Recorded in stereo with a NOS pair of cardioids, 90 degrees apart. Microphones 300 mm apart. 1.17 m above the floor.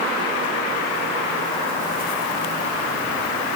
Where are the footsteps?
I don't hear footsteps.